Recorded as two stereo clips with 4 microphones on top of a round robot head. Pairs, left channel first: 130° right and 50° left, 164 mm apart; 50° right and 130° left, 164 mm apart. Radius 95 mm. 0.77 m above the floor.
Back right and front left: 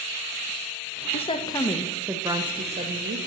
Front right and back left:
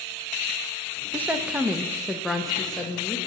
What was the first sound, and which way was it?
A woman speaking, 155° right.